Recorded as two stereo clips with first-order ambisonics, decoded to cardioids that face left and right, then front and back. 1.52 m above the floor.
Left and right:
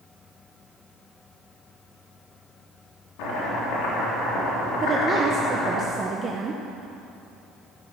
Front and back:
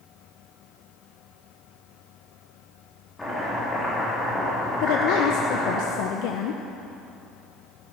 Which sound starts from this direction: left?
Chopping, at 3.2 s.